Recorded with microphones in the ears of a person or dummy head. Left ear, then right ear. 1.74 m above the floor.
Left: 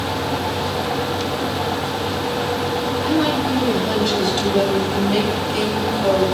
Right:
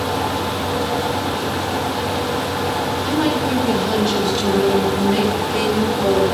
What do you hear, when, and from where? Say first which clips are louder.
3.0 s a woman speaking: left 1 dB; 85° left, 5.5 m